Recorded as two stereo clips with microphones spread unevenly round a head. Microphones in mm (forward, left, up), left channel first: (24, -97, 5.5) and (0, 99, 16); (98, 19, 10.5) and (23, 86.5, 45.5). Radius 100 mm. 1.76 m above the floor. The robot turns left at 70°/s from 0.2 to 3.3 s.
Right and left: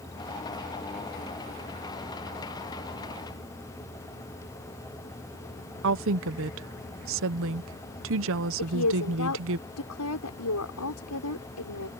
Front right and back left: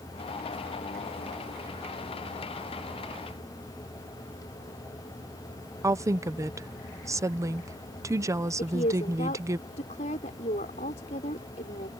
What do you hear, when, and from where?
5.8 s a woman speaking: 95° left
8.6 s a woman speaking: 80° right